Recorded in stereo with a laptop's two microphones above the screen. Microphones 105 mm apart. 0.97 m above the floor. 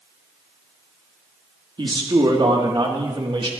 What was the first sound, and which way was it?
A man speaking, 50° right (ahead or behind).